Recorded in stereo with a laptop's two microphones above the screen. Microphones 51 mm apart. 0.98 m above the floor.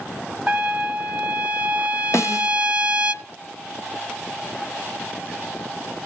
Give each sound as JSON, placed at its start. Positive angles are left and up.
{"t": 0.5, "sound": "a trumpet", "side_deg": -20, "distance_m": 0.9}
{"t": 2.1, "sound": "a snare drum", "side_deg": 60, "distance_m": 0.8}